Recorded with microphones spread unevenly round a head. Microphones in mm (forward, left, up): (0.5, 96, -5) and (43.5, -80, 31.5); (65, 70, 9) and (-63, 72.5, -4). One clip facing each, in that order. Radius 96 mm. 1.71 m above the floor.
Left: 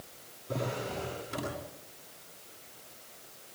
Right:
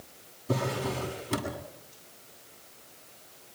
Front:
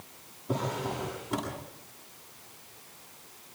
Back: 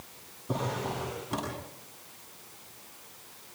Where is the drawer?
90° right, 8 m.